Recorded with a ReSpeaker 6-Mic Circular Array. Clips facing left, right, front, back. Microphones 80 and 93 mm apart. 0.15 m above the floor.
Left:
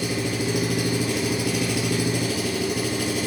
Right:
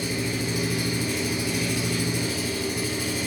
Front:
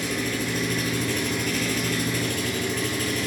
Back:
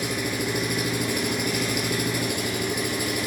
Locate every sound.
0.0 s an engine running: 105° left, 1.4 m